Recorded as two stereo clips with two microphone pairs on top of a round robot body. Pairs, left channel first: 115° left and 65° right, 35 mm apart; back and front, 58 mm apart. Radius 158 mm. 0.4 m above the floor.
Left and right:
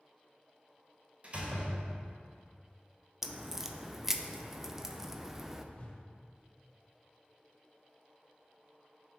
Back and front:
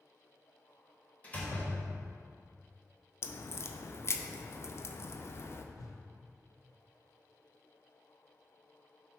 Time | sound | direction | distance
1.2 | a door slam | 115° right | 1.5 m
3.2 | a crack | 140° right | 0.5 m
5.8 | a whoosh | 175° left | 0.9 m